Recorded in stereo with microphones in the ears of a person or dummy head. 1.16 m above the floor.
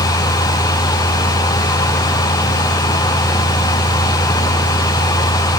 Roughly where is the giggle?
No giggle in this recording.